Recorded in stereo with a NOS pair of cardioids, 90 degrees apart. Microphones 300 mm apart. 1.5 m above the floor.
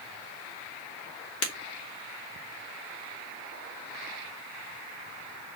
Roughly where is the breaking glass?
Ahead left.